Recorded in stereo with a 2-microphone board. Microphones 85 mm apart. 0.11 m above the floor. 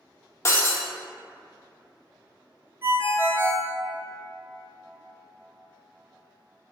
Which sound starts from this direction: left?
Breaking glass, at 0.5 s.